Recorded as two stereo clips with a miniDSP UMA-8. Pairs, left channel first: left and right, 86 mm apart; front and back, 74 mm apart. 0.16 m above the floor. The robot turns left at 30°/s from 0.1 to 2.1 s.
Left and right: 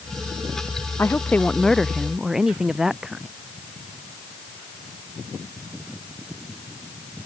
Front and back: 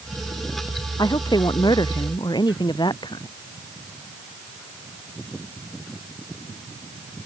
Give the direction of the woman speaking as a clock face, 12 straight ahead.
11 o'clock.